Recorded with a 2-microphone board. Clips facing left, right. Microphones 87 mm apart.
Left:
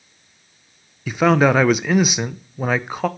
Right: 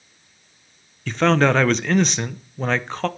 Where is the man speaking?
10° left (ahead or behind), 0.5 m.